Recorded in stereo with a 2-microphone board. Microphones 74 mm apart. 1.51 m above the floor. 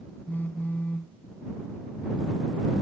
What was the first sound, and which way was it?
A phone buzzing, 25° left (ahead or behind).